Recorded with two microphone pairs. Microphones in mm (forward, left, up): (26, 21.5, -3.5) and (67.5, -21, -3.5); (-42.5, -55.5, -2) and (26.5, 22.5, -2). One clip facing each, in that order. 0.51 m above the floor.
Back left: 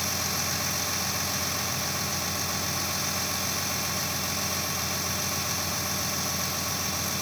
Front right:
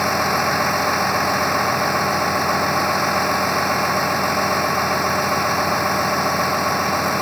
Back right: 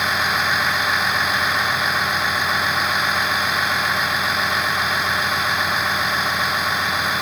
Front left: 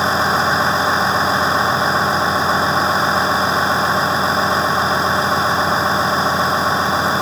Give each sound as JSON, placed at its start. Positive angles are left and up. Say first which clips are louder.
{"t": 0.0, "sound": "a vehicle", "louder": "front right 14 dB, front left 6 dB", "azimuth_deg": -10}